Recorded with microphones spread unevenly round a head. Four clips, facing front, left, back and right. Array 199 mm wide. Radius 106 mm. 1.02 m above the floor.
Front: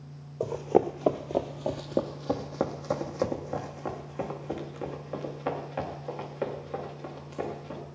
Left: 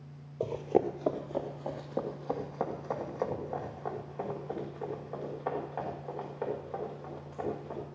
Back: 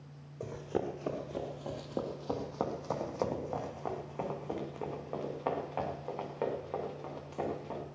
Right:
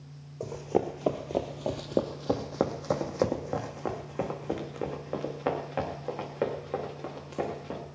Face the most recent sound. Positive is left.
turn(degrees=-95)